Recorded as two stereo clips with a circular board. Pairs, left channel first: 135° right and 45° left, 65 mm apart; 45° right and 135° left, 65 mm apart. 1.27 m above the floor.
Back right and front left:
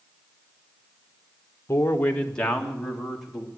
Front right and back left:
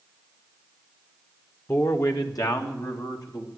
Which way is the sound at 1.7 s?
85° right.